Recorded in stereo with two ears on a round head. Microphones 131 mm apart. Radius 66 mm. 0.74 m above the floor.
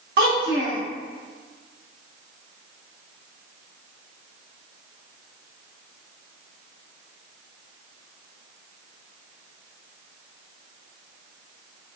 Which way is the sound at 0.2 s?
80° right.